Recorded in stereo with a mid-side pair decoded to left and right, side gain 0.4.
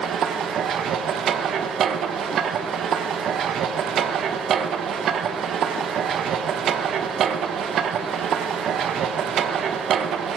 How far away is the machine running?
About 1.1 m.